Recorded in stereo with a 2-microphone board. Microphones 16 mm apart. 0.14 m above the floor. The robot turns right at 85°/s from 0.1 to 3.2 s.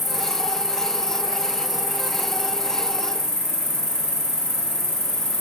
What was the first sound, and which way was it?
An insect, 170° right.